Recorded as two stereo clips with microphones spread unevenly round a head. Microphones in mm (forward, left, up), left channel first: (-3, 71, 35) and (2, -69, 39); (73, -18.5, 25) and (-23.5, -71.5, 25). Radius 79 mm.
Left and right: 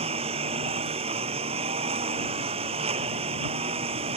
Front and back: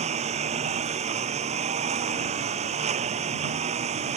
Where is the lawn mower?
135° right.